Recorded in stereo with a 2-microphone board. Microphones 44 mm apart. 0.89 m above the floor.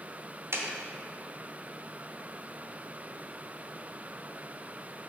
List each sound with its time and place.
0.5 s a clap: 75° right (ahead or behind), 1.6 m